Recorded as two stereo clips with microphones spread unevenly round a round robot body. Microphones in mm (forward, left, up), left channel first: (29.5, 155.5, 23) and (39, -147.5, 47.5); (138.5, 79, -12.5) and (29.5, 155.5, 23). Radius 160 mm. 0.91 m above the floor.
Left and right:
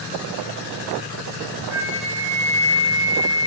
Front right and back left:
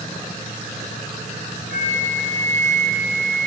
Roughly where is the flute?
Ahead.